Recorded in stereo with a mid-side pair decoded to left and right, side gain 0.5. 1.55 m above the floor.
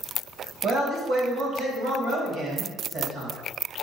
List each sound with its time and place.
0.6 s a man speaking: 60° right, 2.0 m